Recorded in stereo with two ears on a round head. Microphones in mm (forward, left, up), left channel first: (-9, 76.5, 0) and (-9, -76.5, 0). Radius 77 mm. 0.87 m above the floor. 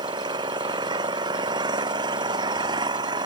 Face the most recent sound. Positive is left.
turn(degrees=-25)  # may be behind; listen again after turning